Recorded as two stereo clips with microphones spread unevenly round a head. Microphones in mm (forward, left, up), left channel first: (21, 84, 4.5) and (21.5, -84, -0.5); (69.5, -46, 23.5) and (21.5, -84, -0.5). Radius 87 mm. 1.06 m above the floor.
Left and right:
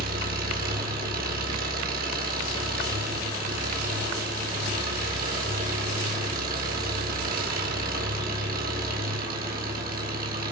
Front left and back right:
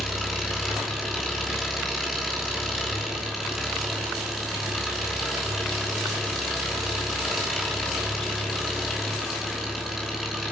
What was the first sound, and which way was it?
An engine running, 55° right.